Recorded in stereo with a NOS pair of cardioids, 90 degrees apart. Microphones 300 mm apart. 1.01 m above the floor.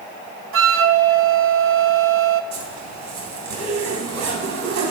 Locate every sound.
0.5 s a flute: 45° right, 1.0 m
2.5 s a zipper: 65° right, 3 m